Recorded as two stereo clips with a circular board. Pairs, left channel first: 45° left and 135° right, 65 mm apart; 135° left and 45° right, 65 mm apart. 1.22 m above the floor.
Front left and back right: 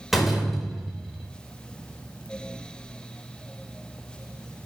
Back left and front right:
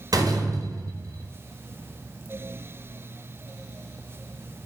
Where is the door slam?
45° right, 4.5 m.